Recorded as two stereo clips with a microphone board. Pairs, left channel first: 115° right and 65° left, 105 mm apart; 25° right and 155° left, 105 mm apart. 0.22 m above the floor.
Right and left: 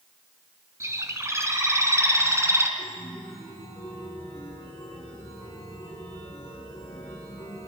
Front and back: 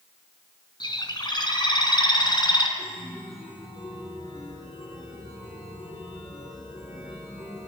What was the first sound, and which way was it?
A bird, 10° left.